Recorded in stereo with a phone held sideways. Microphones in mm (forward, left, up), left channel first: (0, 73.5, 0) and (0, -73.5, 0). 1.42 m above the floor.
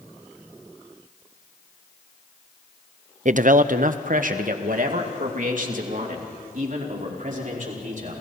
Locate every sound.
3.2 s a man speaking: 55° right (ahead or behind), 0.6 m; by 8.1 s 60° right (ahead or behind), 5.5 m